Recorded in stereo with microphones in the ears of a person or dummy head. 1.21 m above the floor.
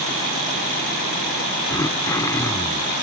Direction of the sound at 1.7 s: 20° left (ahead or behind).